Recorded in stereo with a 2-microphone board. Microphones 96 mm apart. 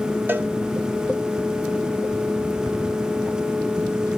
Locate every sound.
0.3 s a cowbell: 20° right (ahead or behind), 0.7 m